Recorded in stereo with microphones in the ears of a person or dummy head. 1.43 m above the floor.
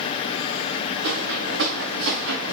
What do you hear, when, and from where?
1.0 s footsteps: 70° right (ahead or behind), 5 m; by 2.5 s 65° right (ahead or behind), 4.5 m